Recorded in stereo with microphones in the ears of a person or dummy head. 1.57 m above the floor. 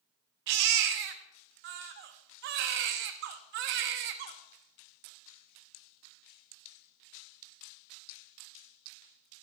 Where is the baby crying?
55° right (ahead or behind), 0.7 m.